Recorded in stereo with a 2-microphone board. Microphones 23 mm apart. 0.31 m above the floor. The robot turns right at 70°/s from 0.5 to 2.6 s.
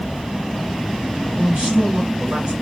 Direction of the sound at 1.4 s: 120° right.